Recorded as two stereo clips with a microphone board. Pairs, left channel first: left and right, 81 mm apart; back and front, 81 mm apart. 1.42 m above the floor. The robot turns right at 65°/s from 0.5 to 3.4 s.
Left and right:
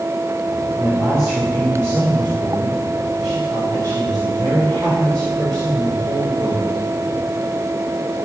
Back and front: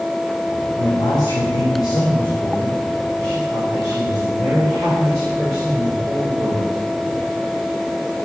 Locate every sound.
0.8 s a man speaking: 145° left, 4 m; by 6.8 s 45° right, 4 m